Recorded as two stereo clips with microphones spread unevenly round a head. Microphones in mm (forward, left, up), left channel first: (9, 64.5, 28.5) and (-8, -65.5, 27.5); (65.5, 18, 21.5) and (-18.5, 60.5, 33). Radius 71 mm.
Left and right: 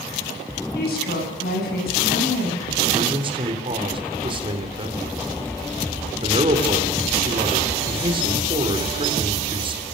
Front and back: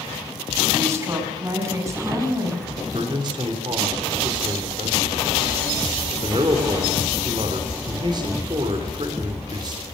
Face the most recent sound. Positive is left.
turn(degrees=-150)